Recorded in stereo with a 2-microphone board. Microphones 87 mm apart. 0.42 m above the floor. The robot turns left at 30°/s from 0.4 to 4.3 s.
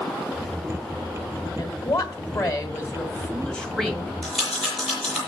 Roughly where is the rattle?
Centre.